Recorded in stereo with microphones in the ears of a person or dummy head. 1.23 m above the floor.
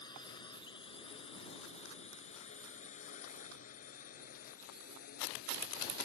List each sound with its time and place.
0.0 s a drone: 30° left (ahead or behind); by 6.1 s 60° left (ahead or behind)